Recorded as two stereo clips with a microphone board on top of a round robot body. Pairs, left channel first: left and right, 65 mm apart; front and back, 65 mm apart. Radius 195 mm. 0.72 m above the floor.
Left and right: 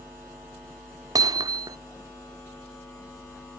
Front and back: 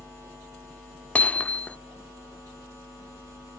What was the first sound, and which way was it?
Hammering, 70° right.